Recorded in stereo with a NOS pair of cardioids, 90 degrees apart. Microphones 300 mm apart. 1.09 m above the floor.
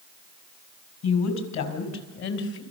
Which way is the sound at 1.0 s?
70° left.